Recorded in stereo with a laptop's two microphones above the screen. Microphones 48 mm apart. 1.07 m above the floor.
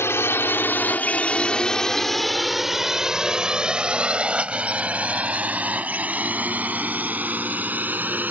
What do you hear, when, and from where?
0.0 s a drone: 65° left (ahead or behind); by 8.3 s 40° right (ahead or behind)